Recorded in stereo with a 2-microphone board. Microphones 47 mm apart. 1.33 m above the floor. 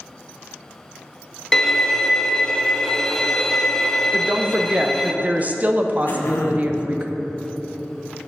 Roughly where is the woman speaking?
Right.